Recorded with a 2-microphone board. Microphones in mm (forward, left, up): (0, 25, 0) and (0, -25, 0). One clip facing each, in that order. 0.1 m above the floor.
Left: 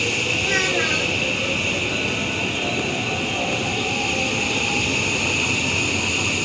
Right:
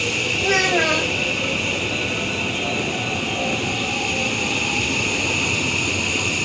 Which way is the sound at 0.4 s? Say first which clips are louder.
Right 5 dB; 70° right (ahead or behind).